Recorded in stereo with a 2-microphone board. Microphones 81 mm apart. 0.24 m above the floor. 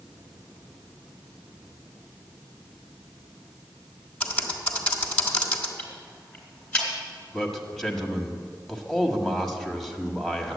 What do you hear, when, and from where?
4.2 s typing on a keyboard: 20° left (ahead or behind), 1.7 m
5.8 s ticking: 15° left (ahead or behind), 3.5 m
7.3 s a man speaking: 5° left (ahead or behind), 1.4 m